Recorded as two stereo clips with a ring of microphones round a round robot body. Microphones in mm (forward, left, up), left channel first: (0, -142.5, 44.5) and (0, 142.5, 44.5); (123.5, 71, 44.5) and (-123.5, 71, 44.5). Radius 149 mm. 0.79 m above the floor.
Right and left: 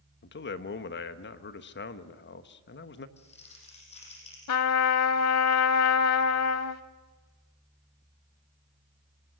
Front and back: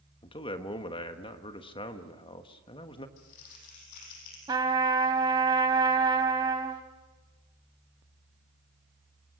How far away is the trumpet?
About 0.8 m.